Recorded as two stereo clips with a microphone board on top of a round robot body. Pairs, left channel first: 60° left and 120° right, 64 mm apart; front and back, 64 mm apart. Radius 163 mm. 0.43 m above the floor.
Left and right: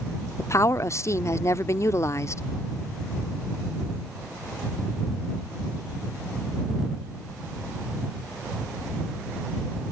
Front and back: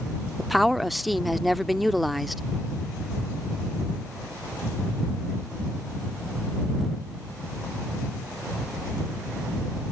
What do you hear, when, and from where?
0.4 s a woman speaking: 90° left